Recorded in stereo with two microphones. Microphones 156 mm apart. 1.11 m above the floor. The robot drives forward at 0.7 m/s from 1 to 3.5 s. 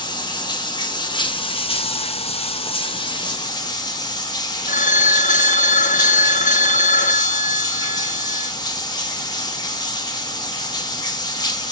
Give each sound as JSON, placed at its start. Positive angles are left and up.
{"t": 0.0, "sound": "running water", "side_deg": 30, "distance_m": 1.3}
{"t": 4.7, "sound": "a phone ringing", "side_deg": 60, "distance_m": 0.8}